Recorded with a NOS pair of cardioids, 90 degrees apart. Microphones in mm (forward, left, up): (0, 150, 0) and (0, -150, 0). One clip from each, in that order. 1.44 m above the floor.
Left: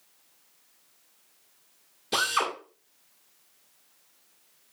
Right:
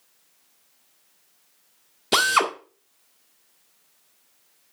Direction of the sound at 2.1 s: 55° right.